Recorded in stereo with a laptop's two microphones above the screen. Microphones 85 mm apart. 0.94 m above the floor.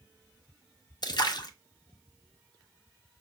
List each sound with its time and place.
1.0 s a splash: 55° left (ahead or behind), 0.5 m